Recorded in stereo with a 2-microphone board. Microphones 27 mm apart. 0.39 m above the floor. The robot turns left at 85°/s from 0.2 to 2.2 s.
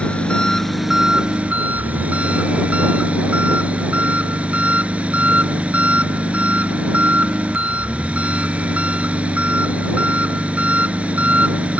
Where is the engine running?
50° left; by 11.8 s 120° right.